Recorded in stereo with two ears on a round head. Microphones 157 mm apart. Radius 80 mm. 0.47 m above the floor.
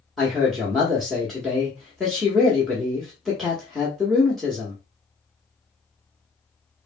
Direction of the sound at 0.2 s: Centre (ahead or behind).